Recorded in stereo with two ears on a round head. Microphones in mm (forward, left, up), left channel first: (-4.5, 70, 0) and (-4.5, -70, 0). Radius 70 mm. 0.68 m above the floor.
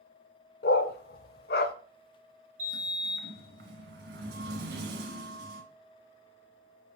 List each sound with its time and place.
0.6 s a dog barking: 65° left (ahead or behind), 0.7 m
2.6 s a sliding door: 80° right, 1.8 m